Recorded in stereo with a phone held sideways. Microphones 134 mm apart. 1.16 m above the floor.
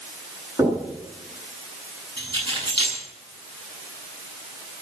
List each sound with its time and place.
0.6 s knocking: 30° right (ahead or behind), 9.5 m
2.2 s keys jangling: 40° right (ahead or behind), 9 m